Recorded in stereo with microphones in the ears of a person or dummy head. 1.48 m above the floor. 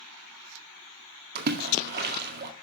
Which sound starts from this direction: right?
A splash, at 1.4 s.